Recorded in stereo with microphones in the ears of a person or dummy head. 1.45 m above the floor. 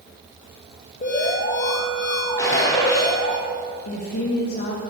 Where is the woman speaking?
50° left (ahead or behind), 1.8 m.